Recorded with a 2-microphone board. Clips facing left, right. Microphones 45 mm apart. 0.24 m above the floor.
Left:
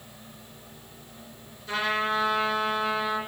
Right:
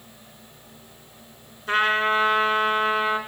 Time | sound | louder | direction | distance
1.7 | a trumpet | right 6 dB | 55° right (ahead or behind) | 2.5 m